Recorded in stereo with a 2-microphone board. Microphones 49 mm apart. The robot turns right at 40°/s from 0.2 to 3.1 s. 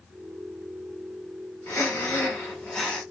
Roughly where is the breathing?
Behind left.